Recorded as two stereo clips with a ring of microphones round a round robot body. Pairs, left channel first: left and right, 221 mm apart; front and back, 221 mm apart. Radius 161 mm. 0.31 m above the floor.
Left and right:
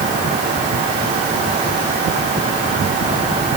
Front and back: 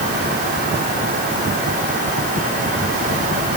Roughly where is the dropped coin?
No dropped coin in this recording.